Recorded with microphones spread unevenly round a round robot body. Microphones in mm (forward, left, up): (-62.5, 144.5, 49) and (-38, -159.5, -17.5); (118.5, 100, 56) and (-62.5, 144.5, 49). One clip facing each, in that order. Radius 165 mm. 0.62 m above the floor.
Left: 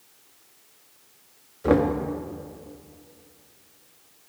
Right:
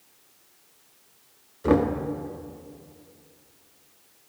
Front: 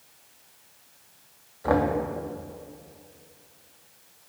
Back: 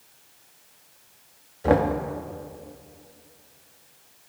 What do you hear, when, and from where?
1.6 s knocking: 150° right, 0.5 m